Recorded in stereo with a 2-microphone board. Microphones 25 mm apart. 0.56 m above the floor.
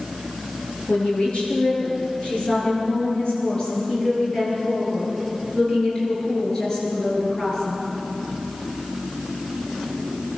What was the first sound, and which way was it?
A woman speaking, 45° left (ahead or behind).